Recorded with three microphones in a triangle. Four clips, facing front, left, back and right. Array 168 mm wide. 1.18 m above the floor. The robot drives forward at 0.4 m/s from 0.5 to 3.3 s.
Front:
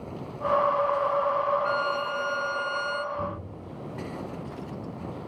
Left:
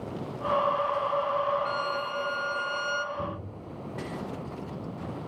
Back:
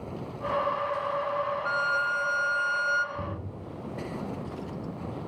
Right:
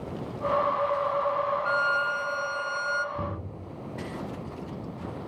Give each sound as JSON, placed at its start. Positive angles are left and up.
{"t": 1.6, "sound": "a violin", "azimuth_deg": 25, "distance_m": 1.4}
{"t": 3.1, "sound": "knocking", "azimuth_deg": -105, "distance_m": 8.5}